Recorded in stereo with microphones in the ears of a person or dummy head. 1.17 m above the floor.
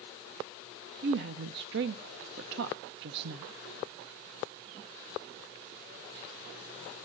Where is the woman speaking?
65° right (ahead or behind), 0.5 m.